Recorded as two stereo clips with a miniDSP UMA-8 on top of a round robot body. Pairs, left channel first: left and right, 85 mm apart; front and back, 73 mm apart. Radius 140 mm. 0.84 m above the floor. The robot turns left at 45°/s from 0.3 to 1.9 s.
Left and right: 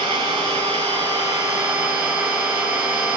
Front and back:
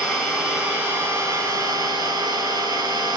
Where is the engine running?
85° right, 7 m; by 3.2 s 160° right, 7 m.